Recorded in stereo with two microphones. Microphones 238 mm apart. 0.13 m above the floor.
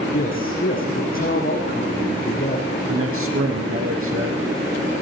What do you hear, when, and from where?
0.1 s a man speaking: 35° left (ahead or behind), 8.5 m
2.9 s a man speaking: 65° right (ahead or behind), 5 m